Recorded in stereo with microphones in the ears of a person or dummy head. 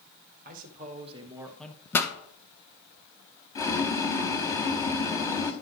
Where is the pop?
10° left (ahead or behind), 1.3 m.